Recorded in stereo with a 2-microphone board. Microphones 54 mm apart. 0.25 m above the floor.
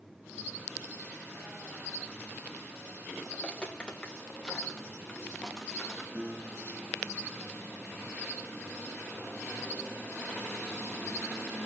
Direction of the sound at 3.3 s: 15° left (ahead or behind).